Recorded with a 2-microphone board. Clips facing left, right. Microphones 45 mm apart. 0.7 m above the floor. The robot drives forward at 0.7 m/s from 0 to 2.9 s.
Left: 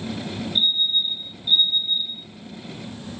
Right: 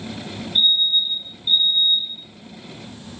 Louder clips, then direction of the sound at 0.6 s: Right 4 dB; 60° right (ahead or behind).